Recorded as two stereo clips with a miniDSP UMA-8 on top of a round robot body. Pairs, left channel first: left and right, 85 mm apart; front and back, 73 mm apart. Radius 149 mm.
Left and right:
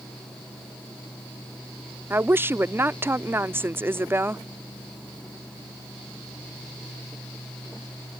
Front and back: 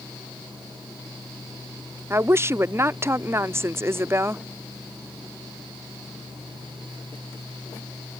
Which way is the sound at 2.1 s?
145° right.